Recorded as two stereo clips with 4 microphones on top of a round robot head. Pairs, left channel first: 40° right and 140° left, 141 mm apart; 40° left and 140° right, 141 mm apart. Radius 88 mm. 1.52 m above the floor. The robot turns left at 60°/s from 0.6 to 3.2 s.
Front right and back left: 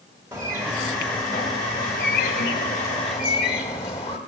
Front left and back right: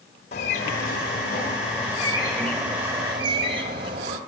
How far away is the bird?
About 1.6 m.